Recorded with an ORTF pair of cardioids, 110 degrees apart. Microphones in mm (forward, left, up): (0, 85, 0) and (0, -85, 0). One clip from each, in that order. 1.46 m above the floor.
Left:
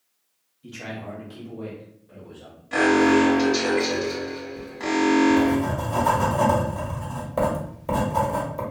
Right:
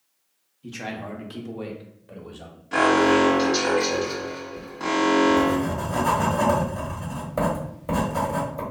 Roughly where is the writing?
Ahead.